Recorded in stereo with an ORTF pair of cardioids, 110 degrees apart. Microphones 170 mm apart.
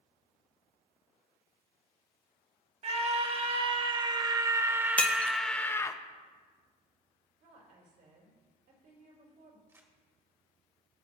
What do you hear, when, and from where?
2.8 s a scream: 40° right, 1.9 m; by 6.0 s 20° left, 0.8 m
5.0 s breaking glass: 10° left, 0.9 m
7.4 s a woman speaking: 70° right, 3.5 m
9.7 s crumpling: 15° right, 1.8 m